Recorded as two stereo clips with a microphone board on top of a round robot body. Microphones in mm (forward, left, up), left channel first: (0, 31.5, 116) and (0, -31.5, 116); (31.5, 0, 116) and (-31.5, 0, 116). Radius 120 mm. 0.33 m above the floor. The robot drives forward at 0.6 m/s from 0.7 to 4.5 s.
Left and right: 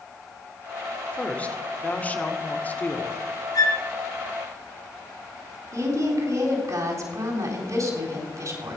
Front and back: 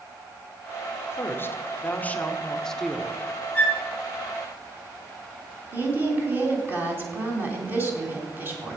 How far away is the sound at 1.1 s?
About 1.9 m.